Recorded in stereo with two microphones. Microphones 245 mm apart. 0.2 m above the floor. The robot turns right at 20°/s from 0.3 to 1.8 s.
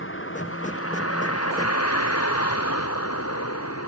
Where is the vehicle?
55° left (ahead or behind); by 3.9 s 80° left.